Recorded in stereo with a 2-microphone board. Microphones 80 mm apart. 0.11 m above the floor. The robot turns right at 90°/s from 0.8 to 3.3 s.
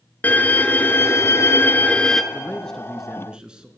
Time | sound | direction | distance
0.2 | a violin | 45° left | 0.8 m
2.3 | a man speaking | 15° left (ahead or behind) | 1.1 m